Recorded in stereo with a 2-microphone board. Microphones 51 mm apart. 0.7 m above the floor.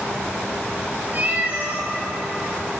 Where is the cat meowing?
35° right (ahead or behind), 3 m.